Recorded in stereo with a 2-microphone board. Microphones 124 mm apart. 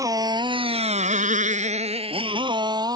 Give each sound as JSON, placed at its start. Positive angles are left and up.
{"t": 0.0, "sound": "a motorcycle", "side_deg": -25}